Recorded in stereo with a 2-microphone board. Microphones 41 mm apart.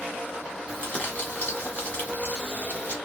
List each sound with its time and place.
0.7 s crumpling: 40° left (ahead or behind), 1.6 m